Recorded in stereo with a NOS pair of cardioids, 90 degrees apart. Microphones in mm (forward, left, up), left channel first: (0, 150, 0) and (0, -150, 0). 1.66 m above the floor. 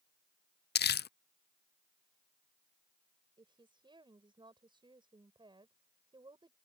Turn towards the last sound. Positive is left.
turn(degrees=-15)